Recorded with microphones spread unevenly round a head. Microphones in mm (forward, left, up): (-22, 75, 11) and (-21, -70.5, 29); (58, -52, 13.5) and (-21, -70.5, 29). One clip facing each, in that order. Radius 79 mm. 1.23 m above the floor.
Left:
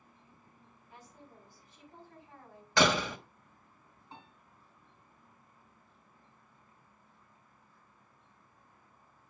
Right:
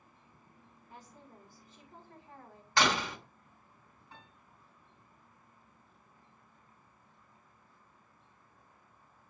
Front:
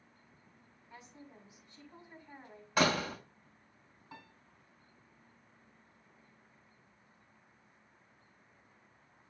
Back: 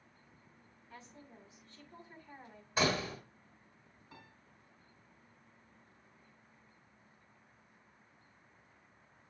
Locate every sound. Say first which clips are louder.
0.9 s a woman speaking: right 1 dB, front 1 dB; 65° right, 7 m
2.8 s a door slam: left 3 dB, front 3 dB; 75° left, 1.4 m
4.1 s a piano: left 4 dB, front 4 dB; 15° left, 4.5 m